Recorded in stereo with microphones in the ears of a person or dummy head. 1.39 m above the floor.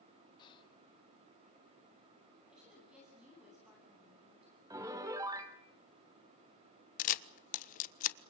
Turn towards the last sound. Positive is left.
turn(degrees=50)  # may be behind; listen again after turning